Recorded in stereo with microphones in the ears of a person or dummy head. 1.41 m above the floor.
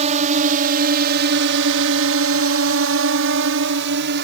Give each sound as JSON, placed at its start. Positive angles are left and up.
{"t": 0.0, "sound": "a drone", "side_deg": -30}